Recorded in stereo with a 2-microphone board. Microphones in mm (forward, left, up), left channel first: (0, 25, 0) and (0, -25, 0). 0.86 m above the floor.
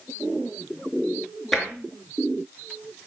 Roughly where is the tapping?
Centre.